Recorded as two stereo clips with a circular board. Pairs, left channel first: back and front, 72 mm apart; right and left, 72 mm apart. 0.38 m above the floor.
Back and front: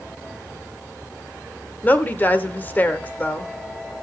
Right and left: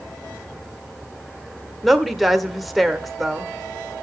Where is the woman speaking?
Straight behind, 0.9 m.